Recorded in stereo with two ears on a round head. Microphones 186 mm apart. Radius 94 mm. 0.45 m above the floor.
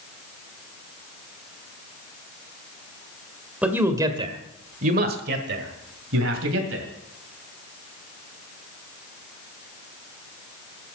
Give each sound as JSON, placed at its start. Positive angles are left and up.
{"t": 3.6, "sound": "a man speaking", "side_deg": -5, "distance_m": 1.4}